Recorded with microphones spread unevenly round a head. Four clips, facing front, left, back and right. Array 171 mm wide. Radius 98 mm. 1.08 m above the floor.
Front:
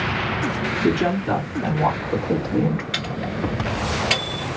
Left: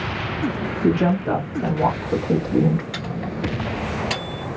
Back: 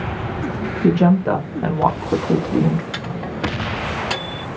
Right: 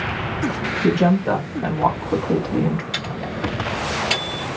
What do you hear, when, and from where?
0.8 s a woman speaking: 165° right, 1.5 m; by 2.8 s 140° left, 0.6 m
2.9 s a microwave: 145° left, 2.0 m